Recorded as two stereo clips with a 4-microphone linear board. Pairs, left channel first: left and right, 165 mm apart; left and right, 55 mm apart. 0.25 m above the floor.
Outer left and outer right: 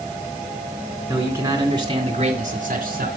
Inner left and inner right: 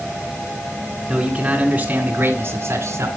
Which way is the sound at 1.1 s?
15° right (ahead or behind).